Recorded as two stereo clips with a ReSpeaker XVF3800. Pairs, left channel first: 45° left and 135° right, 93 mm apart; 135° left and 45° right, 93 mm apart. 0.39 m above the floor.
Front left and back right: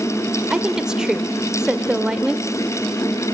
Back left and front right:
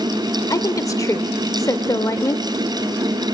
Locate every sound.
0.5 s a woman speaking: 145° left, 0.9 m